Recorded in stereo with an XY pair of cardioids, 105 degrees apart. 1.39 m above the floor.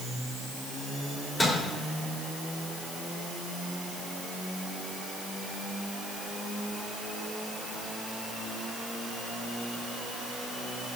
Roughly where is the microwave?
Ahead left.